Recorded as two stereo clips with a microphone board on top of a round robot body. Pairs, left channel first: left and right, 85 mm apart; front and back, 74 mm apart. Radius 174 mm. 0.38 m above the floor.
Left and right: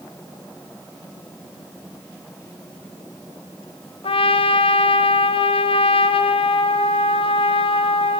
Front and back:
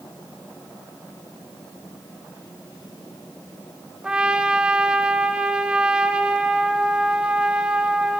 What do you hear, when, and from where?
4.0 s a trumpet: 100° left, 0.8 m